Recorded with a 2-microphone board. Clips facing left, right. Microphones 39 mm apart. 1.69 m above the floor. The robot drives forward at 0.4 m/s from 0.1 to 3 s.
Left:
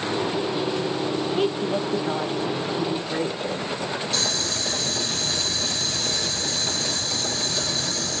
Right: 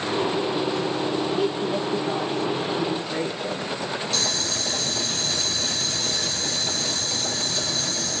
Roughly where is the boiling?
Centre.